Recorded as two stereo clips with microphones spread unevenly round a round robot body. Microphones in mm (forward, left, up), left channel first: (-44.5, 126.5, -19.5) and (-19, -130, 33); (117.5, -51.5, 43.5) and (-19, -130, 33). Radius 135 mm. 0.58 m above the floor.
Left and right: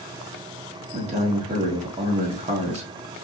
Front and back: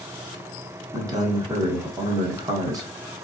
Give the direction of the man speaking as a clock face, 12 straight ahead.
5 o'clock.